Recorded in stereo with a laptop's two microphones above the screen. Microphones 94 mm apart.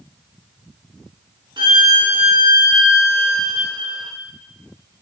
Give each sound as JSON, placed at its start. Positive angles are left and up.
{"t": 1.6, "sound": "a violin", "side_deg": -55, "distance_m": 0.6}